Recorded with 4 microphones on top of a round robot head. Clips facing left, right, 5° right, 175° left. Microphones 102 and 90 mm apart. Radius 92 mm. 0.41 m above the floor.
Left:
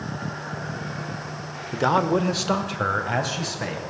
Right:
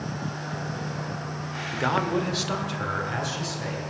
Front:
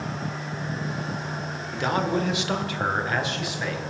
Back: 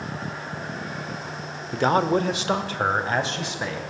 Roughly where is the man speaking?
Behind left.